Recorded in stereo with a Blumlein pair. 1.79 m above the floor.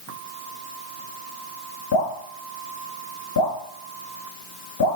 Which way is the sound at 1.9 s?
55° left.